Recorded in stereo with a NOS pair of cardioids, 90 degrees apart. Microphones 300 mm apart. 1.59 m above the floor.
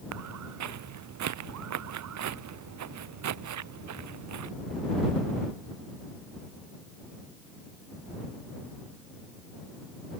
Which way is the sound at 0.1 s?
70° right.